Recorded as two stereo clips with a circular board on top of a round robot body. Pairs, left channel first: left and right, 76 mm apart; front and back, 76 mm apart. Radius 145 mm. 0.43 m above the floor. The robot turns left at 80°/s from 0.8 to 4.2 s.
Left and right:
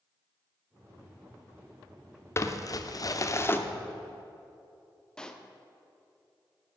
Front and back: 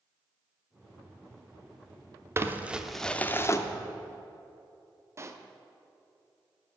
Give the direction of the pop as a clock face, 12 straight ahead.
7 o'clock.